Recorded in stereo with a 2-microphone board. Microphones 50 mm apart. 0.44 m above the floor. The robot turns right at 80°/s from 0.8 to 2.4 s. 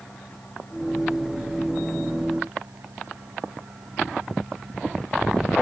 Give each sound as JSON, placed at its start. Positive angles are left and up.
{"t": 0.0, "sound": "an engine running", "azimuth_deg": 135}